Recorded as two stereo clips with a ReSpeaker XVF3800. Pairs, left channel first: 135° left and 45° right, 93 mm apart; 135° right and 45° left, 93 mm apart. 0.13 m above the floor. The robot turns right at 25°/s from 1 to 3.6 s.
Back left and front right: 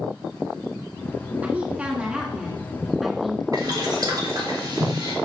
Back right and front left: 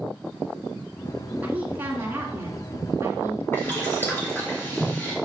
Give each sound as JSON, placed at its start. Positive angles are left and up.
{"t": 1.4, "sound": "a woman speaking", "azimuth_deg": 0, "distance_m": 1.7}
{"t": 3.5, "sound": "boiling", "azimuth_deg": -75, "distance_m": 3.0}